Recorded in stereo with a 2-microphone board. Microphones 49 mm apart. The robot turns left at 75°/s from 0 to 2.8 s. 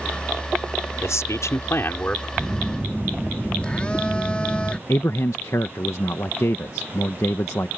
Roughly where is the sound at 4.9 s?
Left.